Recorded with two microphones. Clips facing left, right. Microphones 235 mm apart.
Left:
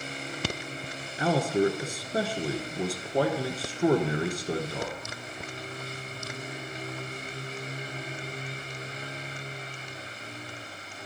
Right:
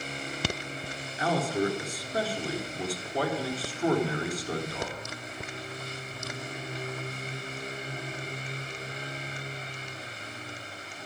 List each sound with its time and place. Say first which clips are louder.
1.2 s a man speaking: left 3 dB; 30° left (ahead or behind), 1.2 m